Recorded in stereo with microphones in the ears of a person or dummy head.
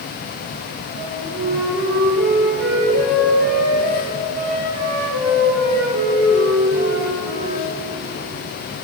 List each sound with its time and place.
1.0 s a flute: 55° right (ahead or behind), 9.5 m